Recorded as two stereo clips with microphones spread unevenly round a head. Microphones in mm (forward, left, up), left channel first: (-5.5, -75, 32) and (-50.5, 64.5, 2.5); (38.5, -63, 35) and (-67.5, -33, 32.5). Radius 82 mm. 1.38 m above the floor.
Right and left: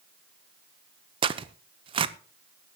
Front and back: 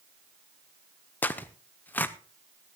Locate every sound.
1.2 s tearing paper: 60° left, 0.8 m